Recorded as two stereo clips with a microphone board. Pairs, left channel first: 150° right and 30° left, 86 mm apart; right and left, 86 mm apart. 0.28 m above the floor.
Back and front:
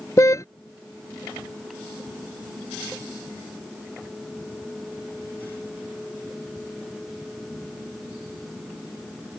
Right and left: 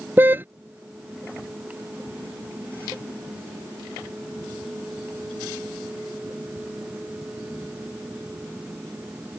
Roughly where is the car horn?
Behind left.